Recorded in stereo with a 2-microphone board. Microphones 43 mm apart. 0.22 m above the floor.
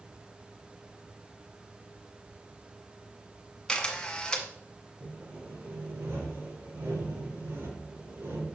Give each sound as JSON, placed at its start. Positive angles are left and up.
{"t": 3.7, "sound": "a camera shutter", "side_deg": 20, "distance_m": 1.5}
{"t": 5.0, "sound": "sawing", "side_deg": -70, "distance_m": 4.5}